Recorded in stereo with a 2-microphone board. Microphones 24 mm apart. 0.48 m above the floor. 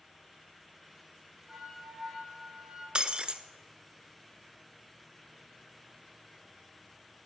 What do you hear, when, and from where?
1.5 s a flute: 30° right (ahead or behind), 5.5 m
3.0 s breaking glass: 45° right (ahead or behind), 0.8 m